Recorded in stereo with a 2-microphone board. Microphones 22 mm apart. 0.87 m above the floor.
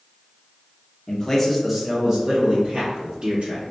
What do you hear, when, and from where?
1.1 s a man speaking: 30° left (ahead or behind), 0.8 m; by 3.7 s 60° right (ahead or behind), 1.5 m